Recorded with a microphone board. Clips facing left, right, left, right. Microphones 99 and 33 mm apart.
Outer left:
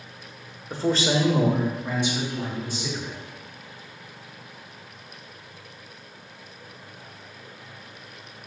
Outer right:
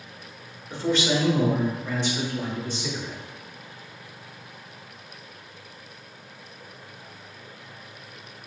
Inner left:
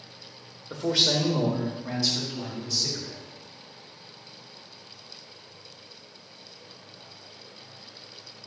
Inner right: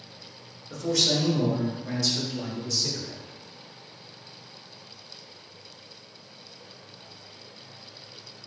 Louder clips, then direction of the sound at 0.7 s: Outer left 1 dB, inner left 1 dB; 40° left (ahead or behind).